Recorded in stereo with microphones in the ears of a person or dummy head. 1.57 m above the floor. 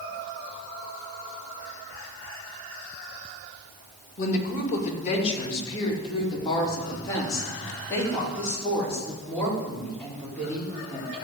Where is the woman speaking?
45° left (ahead or behind), 2 m; by 11.2 s 5° left (ahead or behind), 5.5 m.